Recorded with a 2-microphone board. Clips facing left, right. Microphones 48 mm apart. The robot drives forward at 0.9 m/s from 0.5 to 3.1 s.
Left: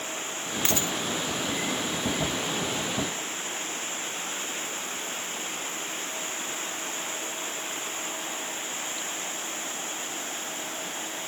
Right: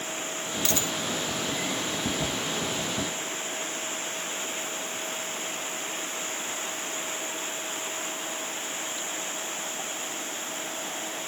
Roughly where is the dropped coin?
Left.